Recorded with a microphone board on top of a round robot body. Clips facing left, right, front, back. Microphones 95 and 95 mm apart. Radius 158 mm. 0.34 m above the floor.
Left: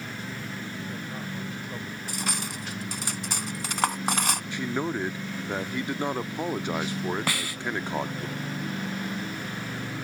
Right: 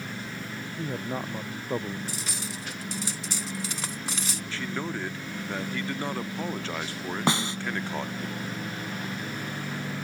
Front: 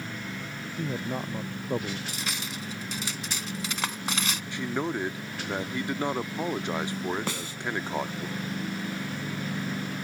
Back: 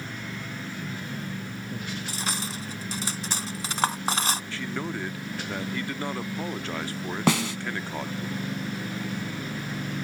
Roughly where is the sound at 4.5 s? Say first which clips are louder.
Left 2 dB, front 2 dB; ahead left.